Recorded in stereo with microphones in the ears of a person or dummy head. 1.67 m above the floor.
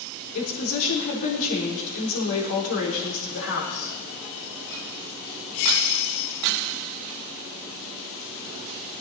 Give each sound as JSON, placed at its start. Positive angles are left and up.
{"t": 0.3, "sound": "a woman speaking", "side_deg": 80, "distance_m": 4.5}